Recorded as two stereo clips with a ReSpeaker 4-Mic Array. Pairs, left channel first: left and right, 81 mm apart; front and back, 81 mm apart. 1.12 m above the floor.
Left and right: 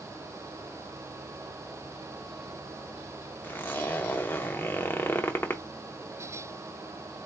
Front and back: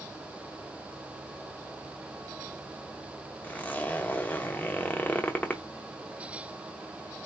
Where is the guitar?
I don't hear a guitar.